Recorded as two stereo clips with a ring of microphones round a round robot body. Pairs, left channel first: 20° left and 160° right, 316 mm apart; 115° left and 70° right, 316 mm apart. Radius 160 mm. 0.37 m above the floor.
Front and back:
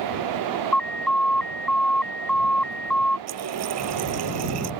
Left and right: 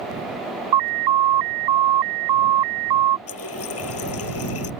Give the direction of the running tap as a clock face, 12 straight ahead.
7 o'clock.